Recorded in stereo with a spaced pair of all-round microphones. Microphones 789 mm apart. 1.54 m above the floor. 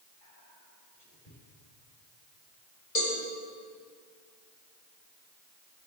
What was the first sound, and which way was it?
Whispering, 80° left.